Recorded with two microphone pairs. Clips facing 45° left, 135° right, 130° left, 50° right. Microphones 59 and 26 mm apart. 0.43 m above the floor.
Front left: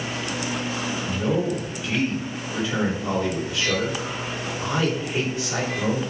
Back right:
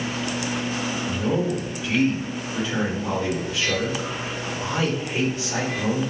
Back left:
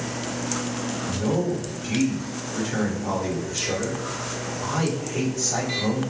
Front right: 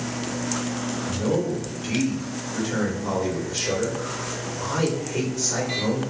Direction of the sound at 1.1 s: 45° right.